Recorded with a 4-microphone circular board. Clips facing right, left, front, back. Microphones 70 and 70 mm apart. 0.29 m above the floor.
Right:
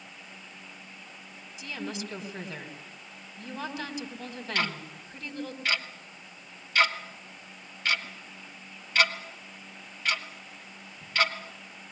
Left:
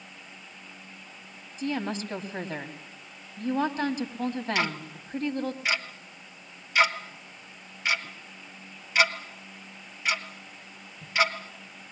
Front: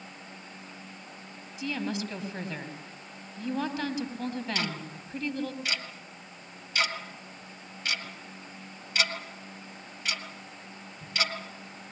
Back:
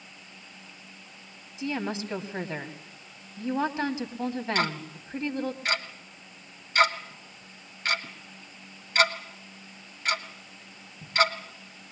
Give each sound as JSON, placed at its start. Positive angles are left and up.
{"t": 1.6, "sound": "a woman speaking", "azimuth_deg": 125, "distance_m": 2.0}
{"t": 4.5, "sound": "ticking", "azimuth_deg": 160, "distance_m": 1.8}